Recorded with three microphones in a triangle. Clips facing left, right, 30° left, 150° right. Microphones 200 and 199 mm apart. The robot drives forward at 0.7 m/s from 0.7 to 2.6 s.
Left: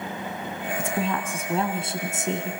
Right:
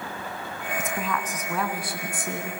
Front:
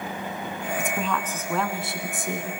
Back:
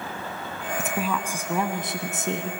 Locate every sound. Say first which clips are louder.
0.8 s a woman speaking: left 3 dB, back 2 dB; 125° left, 1.9 m; by 2.5 s 155° left, 2.5 m